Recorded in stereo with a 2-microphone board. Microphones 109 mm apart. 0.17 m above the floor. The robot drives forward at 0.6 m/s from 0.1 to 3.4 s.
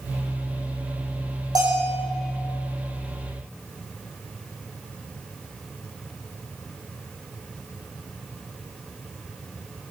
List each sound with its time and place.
1.6 s a bell: 35° right (ahead or behind), 9 m